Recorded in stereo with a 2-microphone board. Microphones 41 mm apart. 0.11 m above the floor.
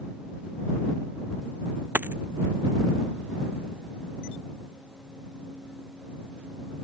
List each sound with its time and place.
1.9 s a dropped coin: 55° right (ahead or behind)